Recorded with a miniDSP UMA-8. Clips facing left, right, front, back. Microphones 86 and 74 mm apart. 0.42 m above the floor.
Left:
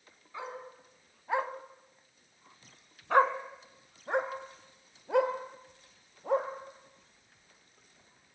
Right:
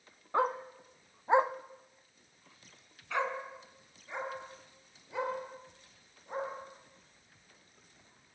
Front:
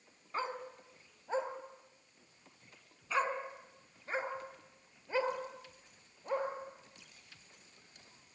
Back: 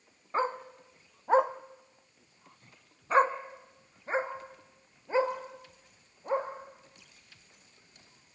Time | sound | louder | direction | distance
0.3 | a dog barking | right 11 dB, back 8 dB | 125° right | 1.2 m